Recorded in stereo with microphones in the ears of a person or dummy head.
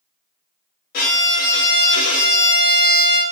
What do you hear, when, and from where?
0.9 s a violin: 50° left (ahead or behind), 0.9 m